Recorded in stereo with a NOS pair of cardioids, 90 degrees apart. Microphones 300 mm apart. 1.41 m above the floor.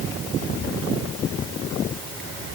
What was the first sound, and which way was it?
Only background noise.